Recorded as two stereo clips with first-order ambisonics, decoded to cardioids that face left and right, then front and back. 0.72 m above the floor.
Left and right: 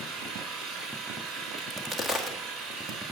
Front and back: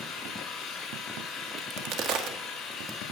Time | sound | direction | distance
0.0 | an engine running | 70° right | 3 m
1.6 | a crack | 165° right | 1.5 m